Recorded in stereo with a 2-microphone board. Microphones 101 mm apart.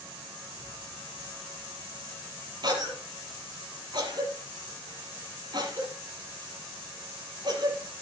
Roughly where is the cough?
Right.